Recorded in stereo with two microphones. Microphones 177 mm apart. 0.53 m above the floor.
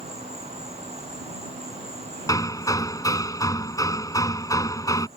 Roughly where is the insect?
Right.